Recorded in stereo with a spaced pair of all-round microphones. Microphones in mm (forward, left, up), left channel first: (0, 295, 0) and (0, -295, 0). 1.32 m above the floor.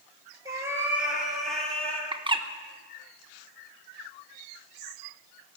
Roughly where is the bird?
Centre.